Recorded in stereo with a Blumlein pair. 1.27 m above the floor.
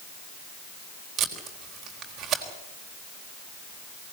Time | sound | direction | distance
1.2 | tape being pulled | 25° right | 4 m